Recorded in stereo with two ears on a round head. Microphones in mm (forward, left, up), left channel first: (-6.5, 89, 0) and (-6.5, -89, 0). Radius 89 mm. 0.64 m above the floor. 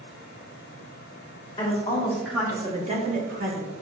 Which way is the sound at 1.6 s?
20° left (ahead or behind).